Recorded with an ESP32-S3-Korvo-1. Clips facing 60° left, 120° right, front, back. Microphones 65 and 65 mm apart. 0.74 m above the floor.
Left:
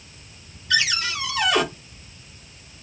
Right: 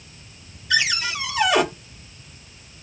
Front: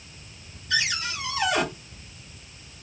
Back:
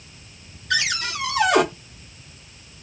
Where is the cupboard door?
155° left, 1.8 m.